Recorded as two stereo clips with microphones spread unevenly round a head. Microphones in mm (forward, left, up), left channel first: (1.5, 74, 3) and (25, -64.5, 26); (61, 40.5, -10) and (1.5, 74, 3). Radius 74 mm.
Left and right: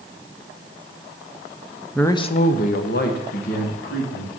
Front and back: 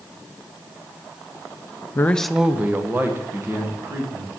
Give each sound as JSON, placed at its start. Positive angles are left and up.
{"t": 1.9, "sound": "a man speaking", "azimuth_deg": 15, "distance_m": 0.5}